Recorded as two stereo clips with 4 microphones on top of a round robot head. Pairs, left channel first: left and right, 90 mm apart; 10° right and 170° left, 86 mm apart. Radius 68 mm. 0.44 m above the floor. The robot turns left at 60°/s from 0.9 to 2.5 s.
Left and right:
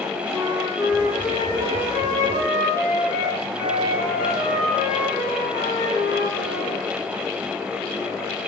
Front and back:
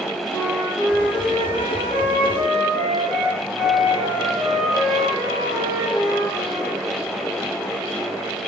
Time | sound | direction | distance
0.3 | a flute | 35° right | 5 m